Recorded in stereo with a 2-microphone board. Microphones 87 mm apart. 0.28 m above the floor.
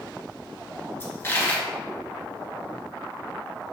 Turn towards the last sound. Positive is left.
turn(degrees=25)  # may be behind; listen again after turning